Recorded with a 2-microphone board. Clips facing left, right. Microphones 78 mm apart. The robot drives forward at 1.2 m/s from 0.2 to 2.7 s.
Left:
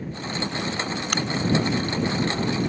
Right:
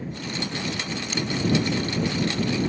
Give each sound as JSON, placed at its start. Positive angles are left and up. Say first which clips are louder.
{"t": 1.1, "sound": "a crack", "louder": "left 2 dB", "side_deg": 60}